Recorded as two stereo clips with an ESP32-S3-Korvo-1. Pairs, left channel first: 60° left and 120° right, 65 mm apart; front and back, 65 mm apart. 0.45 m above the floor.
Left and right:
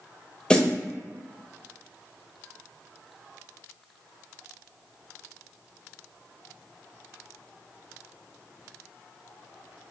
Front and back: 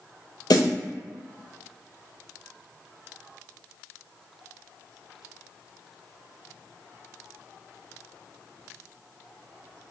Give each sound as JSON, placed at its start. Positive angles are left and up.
{"t": 0.5, "sound": "a snare drum", "azimuth_deg": -15, "distance_m": 0.5}